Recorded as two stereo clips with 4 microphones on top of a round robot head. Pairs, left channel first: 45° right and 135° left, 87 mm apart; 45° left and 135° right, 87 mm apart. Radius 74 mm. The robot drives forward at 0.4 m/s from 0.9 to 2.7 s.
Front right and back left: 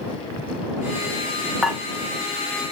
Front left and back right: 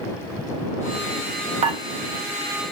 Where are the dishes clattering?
140° right, 0.5 m; by 1.8 s 145° right, 0.6 m.